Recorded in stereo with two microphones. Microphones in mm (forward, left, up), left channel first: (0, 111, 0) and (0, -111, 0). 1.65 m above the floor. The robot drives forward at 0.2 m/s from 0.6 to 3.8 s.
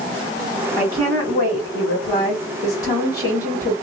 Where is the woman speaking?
20° left (ahead or behind), 1.8 m; by 3.7 s 15° left (ahead or behind), 2.5 m.